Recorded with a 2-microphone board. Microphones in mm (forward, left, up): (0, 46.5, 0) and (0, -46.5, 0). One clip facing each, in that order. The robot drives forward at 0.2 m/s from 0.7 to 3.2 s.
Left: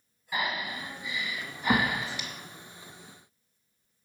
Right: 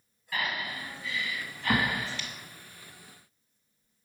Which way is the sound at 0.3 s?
20° left (ahead or behind).